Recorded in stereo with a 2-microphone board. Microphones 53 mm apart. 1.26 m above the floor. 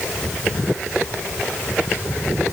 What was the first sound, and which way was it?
Only background noise.